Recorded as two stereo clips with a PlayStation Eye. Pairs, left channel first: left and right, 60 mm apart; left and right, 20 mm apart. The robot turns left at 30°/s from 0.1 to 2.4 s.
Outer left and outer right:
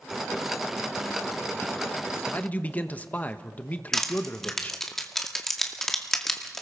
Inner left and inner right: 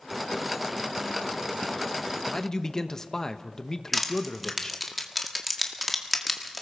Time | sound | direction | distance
2.3 | a man speaking | 25° left (ahead or behind) | 1.1 m
3.9 | crushing | 5° left (ahead or behind) | 2 m